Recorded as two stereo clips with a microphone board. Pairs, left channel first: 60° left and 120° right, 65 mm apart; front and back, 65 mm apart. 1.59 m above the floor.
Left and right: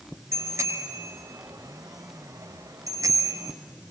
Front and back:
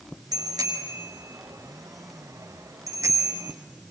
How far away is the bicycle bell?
About 5.5 m.